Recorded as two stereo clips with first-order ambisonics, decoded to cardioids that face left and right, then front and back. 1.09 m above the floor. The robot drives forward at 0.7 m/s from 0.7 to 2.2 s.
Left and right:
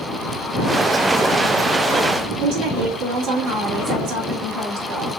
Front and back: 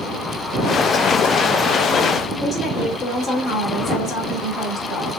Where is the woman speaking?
80° right, 2.5 m.